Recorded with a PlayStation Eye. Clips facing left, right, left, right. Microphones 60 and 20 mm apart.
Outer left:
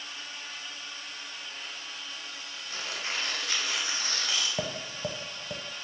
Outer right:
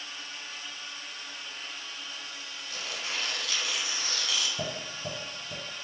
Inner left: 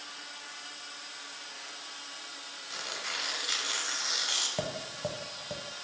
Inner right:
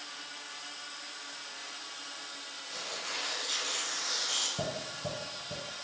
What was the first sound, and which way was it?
Tearing paper, 35° left (ahead or behind).